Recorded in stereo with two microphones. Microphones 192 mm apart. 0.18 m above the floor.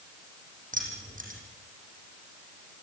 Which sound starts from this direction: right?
Keys jangling, at 0.7 s.